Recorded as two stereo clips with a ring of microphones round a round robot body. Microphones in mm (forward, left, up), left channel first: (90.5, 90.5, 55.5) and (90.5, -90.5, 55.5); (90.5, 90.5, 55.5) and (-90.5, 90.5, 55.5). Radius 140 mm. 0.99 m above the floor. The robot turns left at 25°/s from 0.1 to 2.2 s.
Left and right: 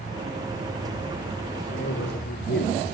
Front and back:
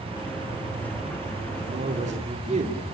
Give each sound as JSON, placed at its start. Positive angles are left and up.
{"t": 1.7, "sound": "a man speaking", "azimuth_deg": 140, "distance_m": 2.5}